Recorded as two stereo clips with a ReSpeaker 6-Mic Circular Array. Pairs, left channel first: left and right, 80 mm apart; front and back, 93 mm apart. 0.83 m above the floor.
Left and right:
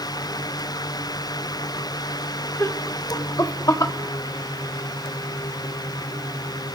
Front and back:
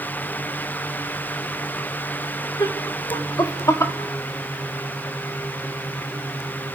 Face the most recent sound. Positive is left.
turn(degrees=55)